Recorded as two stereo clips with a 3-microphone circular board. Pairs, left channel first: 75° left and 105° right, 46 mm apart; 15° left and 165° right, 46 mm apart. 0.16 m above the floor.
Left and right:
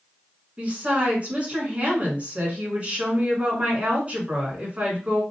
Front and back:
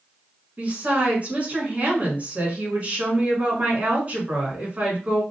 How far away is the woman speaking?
About 1.6 m.